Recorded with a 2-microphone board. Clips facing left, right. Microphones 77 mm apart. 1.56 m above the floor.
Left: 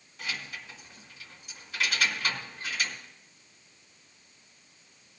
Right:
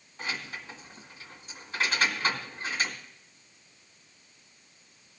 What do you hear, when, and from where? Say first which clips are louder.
0.2 s keys jangling: right 2 dB; 30° right (ahead or behind), 2.0 m